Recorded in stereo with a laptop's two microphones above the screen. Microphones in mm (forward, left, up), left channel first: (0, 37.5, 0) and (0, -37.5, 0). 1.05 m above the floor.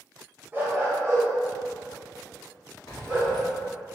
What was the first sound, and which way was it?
A dog barking, 25° right (ahead or behind).